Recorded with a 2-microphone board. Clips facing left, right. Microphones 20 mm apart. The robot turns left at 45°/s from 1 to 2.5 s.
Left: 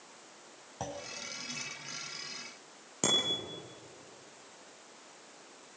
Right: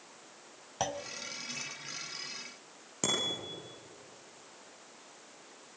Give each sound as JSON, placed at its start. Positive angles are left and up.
{"t": 0.8, "sound": "a clunk", "side_deg": -55, "distance_m": 1.4}
{"t": 3.0, "sound": "a bicycle bell", "side_deg": 0, "distance_m": 9.0}